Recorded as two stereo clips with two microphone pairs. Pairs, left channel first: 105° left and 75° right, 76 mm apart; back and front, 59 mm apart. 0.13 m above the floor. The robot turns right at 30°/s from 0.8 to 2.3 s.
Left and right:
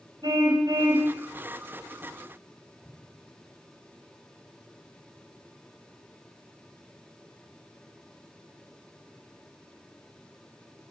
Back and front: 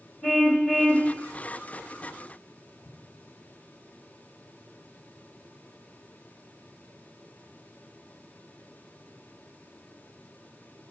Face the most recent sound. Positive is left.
turn(degrees=-160)